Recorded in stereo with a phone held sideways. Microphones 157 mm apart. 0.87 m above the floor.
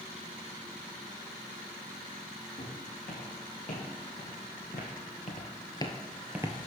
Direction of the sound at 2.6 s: 60° left (ahead or behind).